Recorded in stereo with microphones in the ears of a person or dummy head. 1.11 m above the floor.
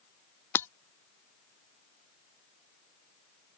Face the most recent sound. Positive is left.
turn(degrees=10)  # may be behind; listen again after turning